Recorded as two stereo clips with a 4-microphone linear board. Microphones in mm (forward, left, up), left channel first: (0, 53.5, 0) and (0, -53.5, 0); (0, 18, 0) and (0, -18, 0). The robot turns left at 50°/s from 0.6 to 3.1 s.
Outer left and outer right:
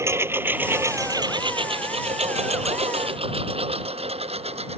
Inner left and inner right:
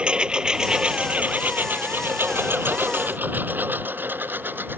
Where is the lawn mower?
25° right (ahead or behind); by 4.8 s 75° right (ahead or behind).